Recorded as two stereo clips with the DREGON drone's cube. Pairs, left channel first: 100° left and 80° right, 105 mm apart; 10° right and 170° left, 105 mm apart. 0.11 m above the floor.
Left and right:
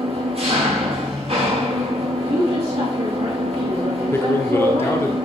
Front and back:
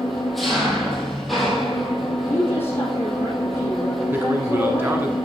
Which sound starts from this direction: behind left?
A man speaking, at 4.1 s.